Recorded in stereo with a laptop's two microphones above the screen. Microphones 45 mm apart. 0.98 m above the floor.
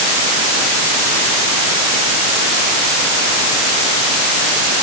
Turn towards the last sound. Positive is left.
No sound to turn to.